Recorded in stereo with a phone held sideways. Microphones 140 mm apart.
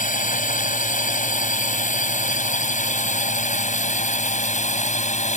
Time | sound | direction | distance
0.0 | a drone | 65° left (ahead or behind) | ?